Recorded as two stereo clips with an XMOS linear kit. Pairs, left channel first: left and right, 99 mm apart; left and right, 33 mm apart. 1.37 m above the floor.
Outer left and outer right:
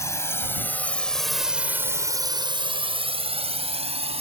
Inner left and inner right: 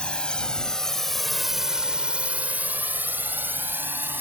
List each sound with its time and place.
0.0 s a drone: 30° left (ahead or behind); by 4.2 s 85° right